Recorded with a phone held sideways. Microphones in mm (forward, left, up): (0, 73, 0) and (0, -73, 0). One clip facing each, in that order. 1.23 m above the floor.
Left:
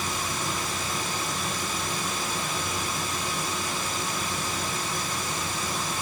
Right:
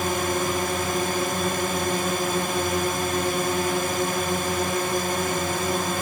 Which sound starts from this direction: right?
A drone, at 0.0 s.